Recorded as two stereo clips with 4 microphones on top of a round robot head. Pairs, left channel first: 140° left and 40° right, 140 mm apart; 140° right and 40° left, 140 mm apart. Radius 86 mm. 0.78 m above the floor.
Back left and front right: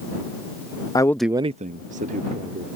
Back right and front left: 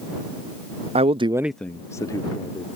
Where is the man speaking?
80° left; by 2.6 s 75° right.